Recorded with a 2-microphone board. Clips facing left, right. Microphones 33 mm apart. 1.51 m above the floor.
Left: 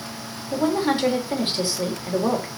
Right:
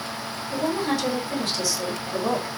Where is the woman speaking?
35° left (ahead or behind), 3 m.